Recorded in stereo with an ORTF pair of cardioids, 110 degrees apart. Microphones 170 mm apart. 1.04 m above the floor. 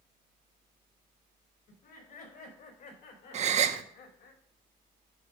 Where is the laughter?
60° left, 4.5 m; by 4.3 s 70° left, 2.5 m.